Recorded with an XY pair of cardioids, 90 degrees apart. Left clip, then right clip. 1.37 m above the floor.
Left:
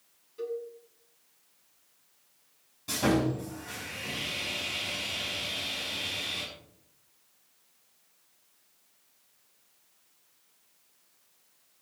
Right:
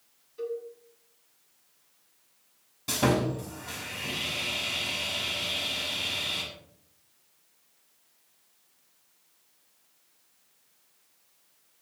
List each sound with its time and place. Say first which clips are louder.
0.4 s a cowbell: right 1 dB; 5° right, 8 m
2.9 s sawing: right 1 dB; 50° right, 7 m